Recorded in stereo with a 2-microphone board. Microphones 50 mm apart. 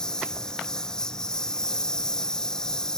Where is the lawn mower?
15° left (ahead or behind).